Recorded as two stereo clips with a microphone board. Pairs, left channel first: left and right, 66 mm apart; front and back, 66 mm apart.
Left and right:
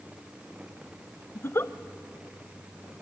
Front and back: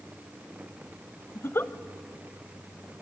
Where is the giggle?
45° left, 0.7 m.